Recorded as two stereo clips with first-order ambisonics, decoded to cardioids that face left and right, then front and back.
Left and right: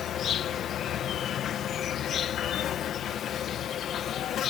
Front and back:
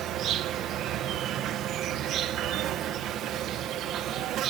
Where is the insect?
140° left.